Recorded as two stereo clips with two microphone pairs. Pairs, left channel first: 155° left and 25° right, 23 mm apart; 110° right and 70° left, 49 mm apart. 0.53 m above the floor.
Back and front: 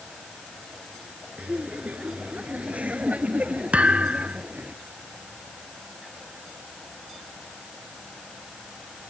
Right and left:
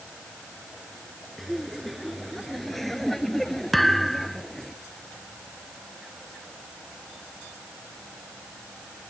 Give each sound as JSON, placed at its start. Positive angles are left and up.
{"t": 1.4, "sound": "laughter", "azimuth_deg": -20}
{"t": 3.7, "sound": "a thud", "azimuth_deg": -20}